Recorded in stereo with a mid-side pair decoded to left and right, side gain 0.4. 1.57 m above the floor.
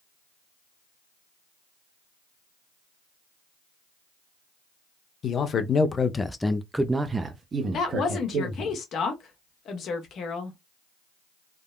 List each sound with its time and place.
5.2 s a man speaking: 60° left, 0.9 m; by 8.7 s 65° right, 1.3 m
7.7 s a woman speaking: 70° left, 1.2 m